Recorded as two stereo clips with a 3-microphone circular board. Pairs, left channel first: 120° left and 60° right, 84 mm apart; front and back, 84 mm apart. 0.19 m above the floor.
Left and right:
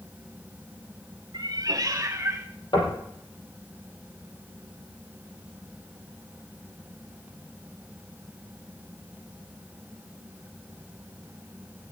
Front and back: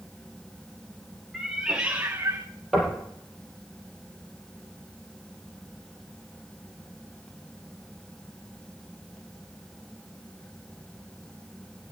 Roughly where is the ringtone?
I don't hear a ringtone.